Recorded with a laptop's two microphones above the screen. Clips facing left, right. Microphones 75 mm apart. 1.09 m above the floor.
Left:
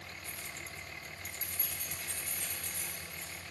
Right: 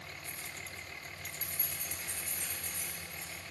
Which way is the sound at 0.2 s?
35° right (ahead or behind).